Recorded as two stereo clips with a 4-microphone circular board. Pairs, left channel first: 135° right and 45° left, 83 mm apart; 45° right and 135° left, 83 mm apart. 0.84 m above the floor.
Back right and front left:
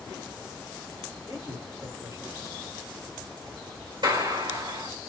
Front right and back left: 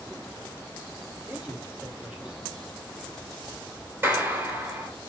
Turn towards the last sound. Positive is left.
turn(degrees=70)